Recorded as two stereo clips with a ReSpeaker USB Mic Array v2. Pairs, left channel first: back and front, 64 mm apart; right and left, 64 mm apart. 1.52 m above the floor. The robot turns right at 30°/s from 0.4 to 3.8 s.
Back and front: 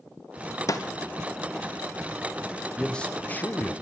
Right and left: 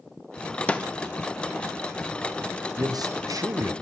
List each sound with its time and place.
0.7 s a snare drum: 160° right, 0.6 m; by 0.8 s 155° right, 0.6 m
2.8 s a man speaking: 100° left, 0.9 m; by 3.7 s 125° left, 0.9 m